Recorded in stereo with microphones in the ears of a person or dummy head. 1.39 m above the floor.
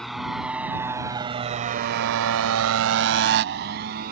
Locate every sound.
0.0 s a motorcycle: 5° left (ahead or behind); by 4.1 s 50° right (ahead or behind)